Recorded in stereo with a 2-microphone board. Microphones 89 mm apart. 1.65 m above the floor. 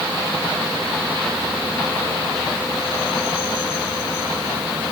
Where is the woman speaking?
No woman speaking in this recording.